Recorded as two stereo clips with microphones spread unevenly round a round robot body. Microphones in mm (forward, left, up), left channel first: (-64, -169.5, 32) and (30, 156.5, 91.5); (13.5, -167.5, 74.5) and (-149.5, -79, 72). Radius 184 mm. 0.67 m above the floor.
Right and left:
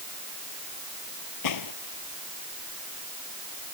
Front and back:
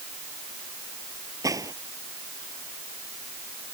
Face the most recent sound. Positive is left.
turn(degrees=-135)